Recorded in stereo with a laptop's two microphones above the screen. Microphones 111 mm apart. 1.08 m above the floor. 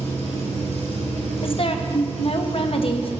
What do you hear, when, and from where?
0.0 s an engine running: 70° left (ahead or behind), 5.5 m
1.4 s a woman speaking: 55° left (ahead or behind), 1.0 m